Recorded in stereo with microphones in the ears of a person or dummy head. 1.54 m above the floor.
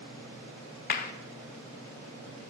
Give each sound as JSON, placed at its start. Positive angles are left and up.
{"t": 0.9, "sound": "a clap", "side_deg": 45, "distance_m": 0.6}